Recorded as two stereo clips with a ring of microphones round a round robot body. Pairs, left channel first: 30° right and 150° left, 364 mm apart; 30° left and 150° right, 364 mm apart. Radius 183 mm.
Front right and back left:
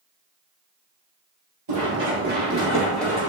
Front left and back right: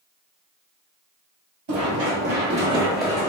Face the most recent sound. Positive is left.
turn(degrees=-10)